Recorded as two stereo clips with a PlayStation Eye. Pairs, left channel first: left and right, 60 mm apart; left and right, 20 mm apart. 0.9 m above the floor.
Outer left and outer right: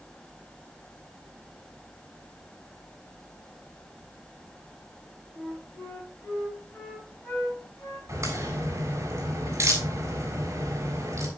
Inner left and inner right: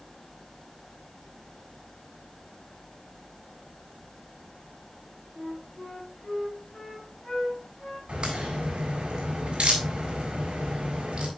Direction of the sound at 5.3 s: 40° left (ahead or behind).